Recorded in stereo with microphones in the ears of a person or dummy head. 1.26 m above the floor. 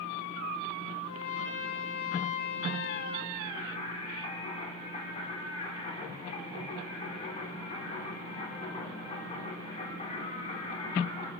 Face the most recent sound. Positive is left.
turn(degrees=30)  # may be behind; listen again after turning